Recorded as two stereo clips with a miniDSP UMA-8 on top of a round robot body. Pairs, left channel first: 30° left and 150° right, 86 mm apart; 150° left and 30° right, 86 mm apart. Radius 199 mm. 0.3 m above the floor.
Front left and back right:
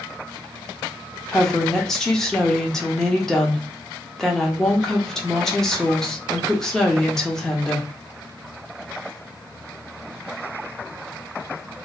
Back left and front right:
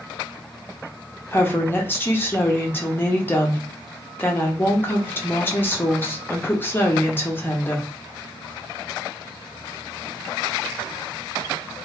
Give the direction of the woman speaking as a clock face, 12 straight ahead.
8 o'clock.